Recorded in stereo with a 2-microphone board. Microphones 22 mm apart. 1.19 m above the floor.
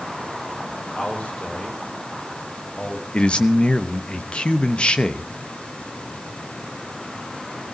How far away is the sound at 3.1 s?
About 1.0 m.